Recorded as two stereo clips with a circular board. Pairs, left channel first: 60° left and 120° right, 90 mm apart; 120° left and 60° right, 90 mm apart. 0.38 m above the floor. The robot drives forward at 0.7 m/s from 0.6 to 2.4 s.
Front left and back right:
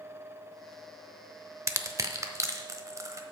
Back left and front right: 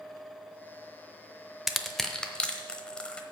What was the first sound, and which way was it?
Crushing, 150° right.